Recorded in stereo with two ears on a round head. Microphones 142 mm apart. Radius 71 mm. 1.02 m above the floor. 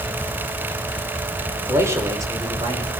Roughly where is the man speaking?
Centre.